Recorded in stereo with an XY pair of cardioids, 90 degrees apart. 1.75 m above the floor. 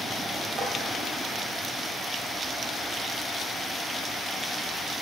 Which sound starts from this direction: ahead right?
Tapping, at 0.6 s.